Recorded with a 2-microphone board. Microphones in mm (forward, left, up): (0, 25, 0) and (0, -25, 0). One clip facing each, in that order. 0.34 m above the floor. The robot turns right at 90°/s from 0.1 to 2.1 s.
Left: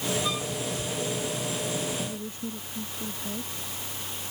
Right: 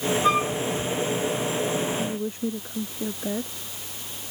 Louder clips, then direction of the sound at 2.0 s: Right 6 dB; 50° right (ahead or behind).